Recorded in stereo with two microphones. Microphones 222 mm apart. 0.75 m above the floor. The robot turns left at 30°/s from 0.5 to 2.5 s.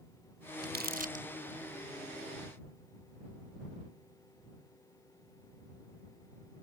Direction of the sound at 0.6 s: 50° right (ahead or behind).